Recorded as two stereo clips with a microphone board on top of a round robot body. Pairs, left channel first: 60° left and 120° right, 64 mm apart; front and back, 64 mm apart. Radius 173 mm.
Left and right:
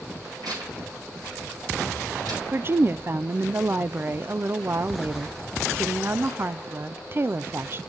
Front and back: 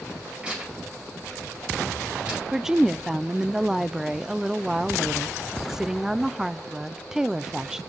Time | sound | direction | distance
0.4 | tearing paper | 110° right | 5.5 m
2.5 | a woman speaking | 100° right | 0.5 m